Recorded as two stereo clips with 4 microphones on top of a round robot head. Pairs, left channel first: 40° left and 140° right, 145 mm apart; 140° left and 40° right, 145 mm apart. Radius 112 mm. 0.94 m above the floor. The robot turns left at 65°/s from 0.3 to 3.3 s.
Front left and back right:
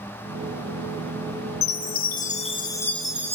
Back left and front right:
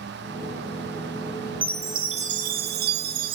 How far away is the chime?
About 1.6 m.